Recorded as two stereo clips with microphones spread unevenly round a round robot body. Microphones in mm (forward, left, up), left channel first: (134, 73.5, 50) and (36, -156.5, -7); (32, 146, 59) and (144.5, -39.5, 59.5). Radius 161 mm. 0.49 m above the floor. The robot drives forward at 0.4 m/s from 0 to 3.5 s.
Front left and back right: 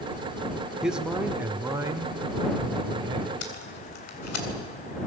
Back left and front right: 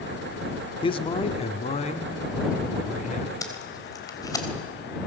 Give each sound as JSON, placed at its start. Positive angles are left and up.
{"t": 0.8, "sound": "a man speaking", "azimuth_deg": 175, "distance_m": 0.9}
{"t": 3.4, "sound": "tape being pulled", "azimuth_deg": 50, "distance_m": 3.5}